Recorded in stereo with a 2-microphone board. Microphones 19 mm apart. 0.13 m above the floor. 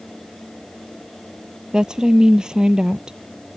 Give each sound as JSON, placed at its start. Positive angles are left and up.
{"t": 1.7, "sound": "a woman speaking", "side_deg": -45}